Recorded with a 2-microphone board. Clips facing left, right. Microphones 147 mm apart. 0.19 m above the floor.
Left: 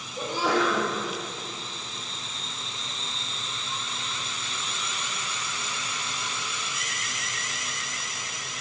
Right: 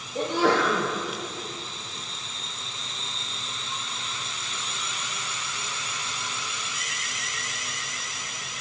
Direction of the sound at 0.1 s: 65° right (ahead or behind).